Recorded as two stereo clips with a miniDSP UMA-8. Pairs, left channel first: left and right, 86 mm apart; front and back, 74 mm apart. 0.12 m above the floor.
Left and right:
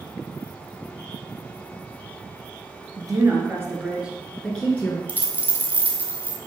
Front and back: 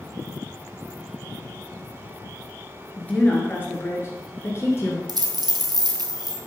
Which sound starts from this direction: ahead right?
A woman speaking, at 3.0 s.